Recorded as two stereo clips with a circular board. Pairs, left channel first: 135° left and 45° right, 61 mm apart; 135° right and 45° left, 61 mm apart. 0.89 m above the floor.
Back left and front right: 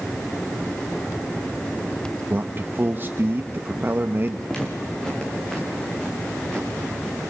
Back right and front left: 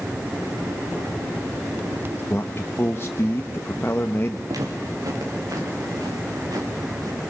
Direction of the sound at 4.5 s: 55° left.